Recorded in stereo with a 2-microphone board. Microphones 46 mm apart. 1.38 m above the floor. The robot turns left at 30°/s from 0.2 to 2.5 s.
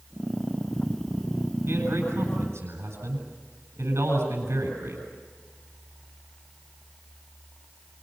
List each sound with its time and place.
1.7 s a man speaking: 65° right (ahead or behind), 9 m; by 5.0 s 90° right, 9 m